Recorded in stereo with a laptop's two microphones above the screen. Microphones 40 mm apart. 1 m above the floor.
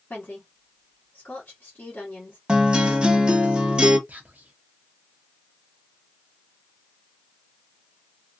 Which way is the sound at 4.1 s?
40° right (ahead or behind).